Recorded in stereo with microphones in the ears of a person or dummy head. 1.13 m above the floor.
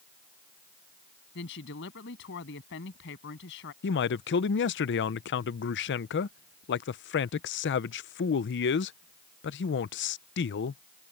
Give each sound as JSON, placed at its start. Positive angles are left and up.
{"t": 1.4, "sound": "a woman speaking", "side_deg": 60}
{"t": 3.8, "sound": "a man speaking", "side_deg": 50}